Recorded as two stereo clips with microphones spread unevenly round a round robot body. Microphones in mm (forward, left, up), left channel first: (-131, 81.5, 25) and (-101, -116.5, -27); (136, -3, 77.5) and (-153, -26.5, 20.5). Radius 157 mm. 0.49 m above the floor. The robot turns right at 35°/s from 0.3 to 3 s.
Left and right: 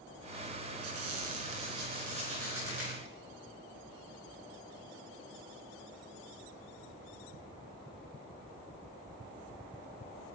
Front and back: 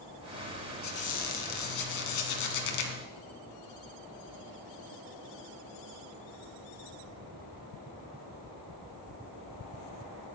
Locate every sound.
0.8 s a squeak: 55° right, 2.0 m; by 3.0 s 15° left, 2.0 m